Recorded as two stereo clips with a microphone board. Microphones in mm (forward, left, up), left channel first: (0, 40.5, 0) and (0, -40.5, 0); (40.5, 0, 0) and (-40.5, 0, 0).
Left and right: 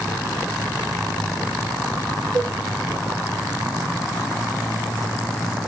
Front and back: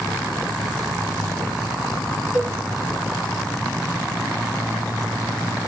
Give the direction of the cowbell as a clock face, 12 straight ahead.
12 o'clock.